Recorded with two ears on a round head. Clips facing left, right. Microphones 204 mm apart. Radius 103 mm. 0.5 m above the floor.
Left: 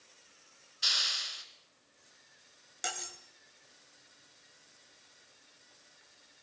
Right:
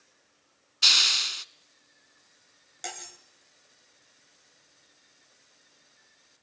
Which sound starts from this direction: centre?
Cutlery clinking, at 2.8 s.